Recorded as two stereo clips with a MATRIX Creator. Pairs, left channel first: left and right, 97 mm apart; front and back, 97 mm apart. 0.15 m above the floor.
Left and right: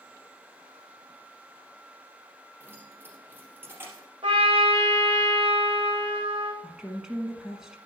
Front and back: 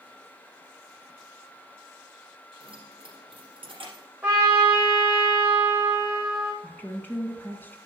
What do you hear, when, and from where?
2.6 s keys jangling: 155° right, 3 m
4.2 s a trumpet: 110° right, 3.5 m
6.6 s a woman speaking: 15° right, 1.3 m